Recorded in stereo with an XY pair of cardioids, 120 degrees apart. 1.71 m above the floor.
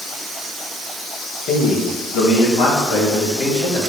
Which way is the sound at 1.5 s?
65° left.